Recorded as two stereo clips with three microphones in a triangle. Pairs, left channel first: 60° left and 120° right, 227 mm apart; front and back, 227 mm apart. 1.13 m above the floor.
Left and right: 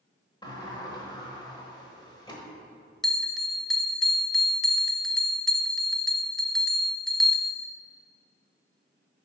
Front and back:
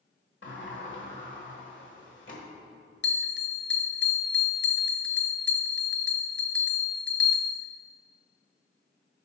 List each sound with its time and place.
0.4 s a sliding door: 10° right, 1.4 m
3.0 s a bell: 30° right, 0.5 m